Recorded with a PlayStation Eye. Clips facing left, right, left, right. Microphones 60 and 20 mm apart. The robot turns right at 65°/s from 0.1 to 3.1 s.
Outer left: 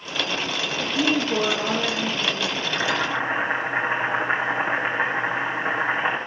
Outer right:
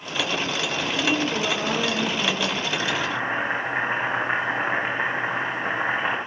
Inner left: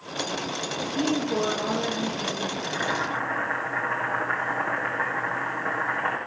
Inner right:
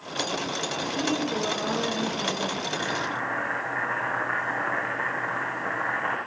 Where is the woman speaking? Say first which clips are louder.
Outer left 2 dB, inner left 2 dB; 115° left, 8 m; by 2.5 s 130° right, 8 m.